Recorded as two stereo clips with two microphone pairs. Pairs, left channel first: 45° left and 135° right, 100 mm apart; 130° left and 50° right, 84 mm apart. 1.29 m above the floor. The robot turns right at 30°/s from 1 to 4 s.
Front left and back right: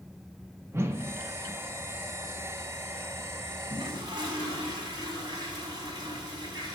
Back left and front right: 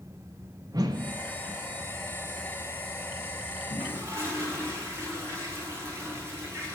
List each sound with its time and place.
0.7 s a whoosh: 80° right, 0.5 m; by 1.2 s 75° right, 0.5 m
3.7 s a toilet flushing: 110° right, 1.8 m; by 6.7 s 100° right, 1.8 m